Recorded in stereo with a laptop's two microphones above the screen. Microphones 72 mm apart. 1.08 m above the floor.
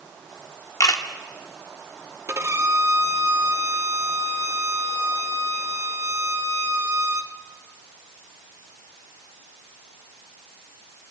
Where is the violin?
40° right (ahead or behind), 0.8 m.